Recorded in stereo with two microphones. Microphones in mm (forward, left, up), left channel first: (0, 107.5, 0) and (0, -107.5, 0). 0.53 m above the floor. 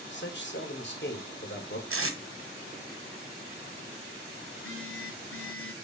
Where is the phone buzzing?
75° left (ahead or behind), 2.0 m.